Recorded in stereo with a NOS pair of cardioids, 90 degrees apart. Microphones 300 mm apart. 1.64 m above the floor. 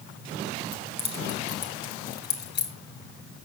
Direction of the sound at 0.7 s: 15° left.